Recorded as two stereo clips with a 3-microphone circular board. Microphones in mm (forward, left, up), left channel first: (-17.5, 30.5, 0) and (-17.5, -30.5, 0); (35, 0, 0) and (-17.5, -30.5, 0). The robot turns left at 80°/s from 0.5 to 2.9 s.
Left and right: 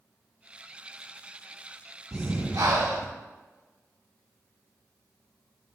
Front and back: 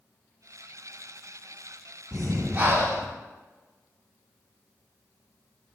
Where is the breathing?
55° right, 0.6 m; by 3.1 s 120° right, 0.6 m.